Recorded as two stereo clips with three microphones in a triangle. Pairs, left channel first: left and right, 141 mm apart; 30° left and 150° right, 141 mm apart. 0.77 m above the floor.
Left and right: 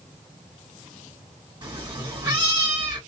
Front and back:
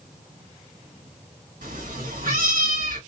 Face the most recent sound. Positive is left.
turn(degrees=-150)